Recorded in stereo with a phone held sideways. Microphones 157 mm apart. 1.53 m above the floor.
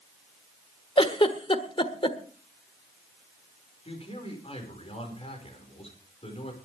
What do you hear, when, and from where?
1.0 s a giggle: 35° left (ahead or behind), 1.4 m
3.9 s a man speaking: 40° left (ahead or behind), 6 m